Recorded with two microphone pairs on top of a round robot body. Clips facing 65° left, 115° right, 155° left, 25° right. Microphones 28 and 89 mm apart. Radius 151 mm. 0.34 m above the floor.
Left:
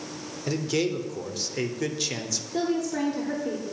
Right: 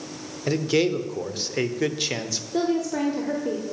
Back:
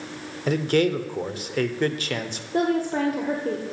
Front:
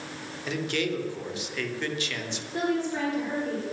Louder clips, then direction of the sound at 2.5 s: Right 3 dB, back 5 dB; 170° left.